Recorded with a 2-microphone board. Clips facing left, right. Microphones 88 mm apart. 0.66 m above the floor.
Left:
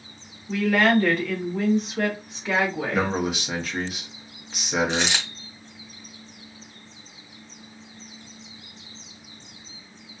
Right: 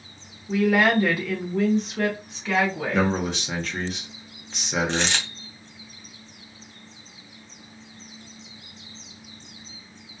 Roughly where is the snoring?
I don't hear snoring.